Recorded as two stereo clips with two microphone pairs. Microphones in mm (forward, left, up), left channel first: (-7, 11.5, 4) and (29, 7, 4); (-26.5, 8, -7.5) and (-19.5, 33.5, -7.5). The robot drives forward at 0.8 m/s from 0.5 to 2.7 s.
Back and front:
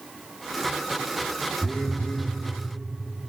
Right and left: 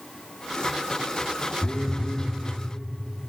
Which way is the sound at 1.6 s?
125° right.